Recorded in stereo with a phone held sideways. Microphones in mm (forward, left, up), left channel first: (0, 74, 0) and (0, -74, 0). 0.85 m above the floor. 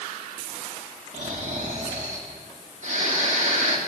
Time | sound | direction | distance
1.1 | snoring | 55° right (ahead or behind) | 1.9 m